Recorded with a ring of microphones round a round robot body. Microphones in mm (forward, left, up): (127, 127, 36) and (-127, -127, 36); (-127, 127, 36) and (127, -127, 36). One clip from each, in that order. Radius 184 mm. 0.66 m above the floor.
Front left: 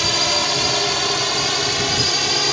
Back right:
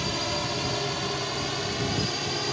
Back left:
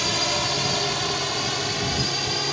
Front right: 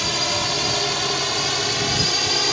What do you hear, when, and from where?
0.0 s a drone: 40° left; by 2.5 s 15° left